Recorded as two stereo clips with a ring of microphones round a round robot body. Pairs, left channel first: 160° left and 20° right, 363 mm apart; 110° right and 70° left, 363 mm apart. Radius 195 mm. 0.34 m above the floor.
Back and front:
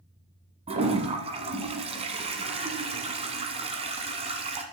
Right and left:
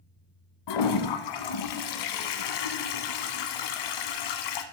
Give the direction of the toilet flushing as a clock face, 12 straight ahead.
3 o'clock.